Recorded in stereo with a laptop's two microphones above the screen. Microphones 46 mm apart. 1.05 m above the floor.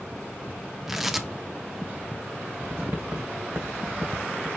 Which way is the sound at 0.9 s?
10° right (ahead or behind).